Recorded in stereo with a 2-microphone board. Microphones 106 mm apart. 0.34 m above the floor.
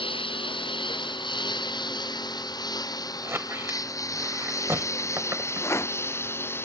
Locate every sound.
0.0 s a lawn mower: 55° left (ahead or behind); by 6.6 s 20° left (ahead or behind)
3.2 s a squeak: 25° right (ahead or behind)
5.6 s a rattle: 25° left (ahead or behind)